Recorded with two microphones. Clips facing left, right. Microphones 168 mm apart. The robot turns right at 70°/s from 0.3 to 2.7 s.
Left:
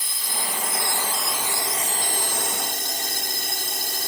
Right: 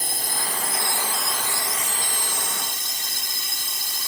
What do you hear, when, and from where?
0.0 s a drone: 65° right; by 4.1 s 100° left